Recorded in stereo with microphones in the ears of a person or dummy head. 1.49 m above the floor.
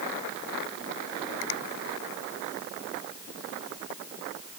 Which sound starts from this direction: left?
A finger snap, at 1.4 s.